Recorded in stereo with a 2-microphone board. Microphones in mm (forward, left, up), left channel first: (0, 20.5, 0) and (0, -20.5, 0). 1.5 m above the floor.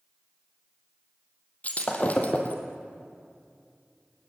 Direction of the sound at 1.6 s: 40° left (ahead or behind).